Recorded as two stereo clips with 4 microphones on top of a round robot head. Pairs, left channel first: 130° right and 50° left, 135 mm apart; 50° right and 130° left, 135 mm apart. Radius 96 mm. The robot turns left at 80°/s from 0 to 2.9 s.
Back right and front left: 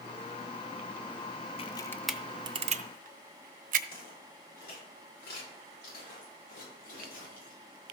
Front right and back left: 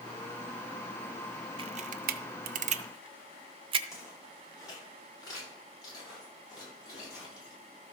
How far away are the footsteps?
About 6 m.